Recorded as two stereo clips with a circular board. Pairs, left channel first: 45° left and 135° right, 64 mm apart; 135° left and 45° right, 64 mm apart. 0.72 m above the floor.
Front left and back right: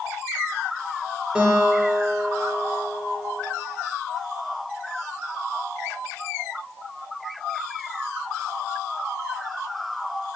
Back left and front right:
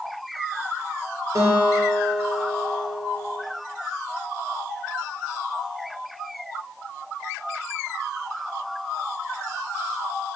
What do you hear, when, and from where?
1.4 s a guitar: 65° right, 0.5 m